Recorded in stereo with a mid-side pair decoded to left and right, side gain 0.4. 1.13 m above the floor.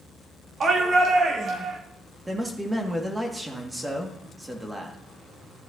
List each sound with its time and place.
0.6 s a shout: 50° right, 2.5 m; by 1.8 s 65° right, 3.5 m
2.3 s a man speaking: 15° right, 2 m